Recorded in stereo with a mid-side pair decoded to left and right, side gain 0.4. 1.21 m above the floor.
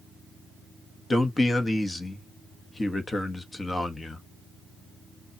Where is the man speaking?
25° left, 1.4 m.